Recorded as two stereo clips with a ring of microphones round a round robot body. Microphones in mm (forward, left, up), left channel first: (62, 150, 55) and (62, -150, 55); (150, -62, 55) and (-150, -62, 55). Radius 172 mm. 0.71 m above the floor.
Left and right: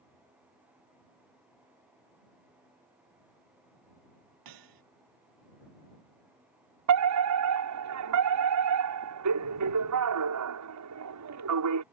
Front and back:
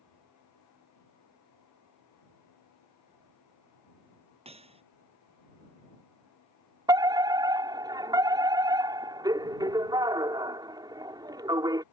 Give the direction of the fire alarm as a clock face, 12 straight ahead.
3 o'clock.